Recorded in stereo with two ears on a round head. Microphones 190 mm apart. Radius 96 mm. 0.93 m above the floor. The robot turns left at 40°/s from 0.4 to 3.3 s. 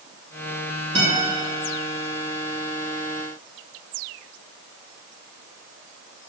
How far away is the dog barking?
I don't hear a dog barking.